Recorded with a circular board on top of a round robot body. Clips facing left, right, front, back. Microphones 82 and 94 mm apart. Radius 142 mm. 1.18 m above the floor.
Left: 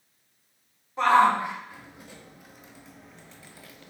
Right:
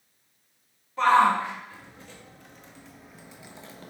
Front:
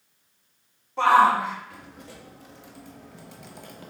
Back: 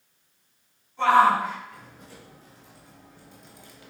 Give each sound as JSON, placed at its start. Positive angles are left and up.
{"t": 1.0, "sound": "a shout", "azimuth_deg": 20, "distance_m": 4.5}